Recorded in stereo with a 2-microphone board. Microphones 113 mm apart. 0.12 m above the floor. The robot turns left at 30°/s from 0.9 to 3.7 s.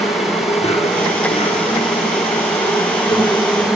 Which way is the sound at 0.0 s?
110° left.